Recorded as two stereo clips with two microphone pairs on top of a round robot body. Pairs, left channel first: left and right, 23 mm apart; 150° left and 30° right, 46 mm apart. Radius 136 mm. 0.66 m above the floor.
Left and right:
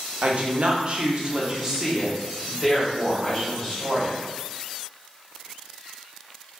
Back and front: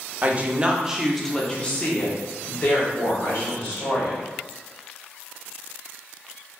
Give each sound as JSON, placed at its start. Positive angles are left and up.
{"t": 0.2, "sound": "a woman speaking", "azimuth_deg": -80, "distance_m": 0.8}